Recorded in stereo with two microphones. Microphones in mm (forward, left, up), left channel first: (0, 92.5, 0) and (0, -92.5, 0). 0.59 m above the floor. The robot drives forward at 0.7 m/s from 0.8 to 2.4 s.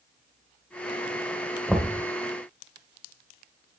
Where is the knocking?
Centre (ahead or behind), 1.8 m.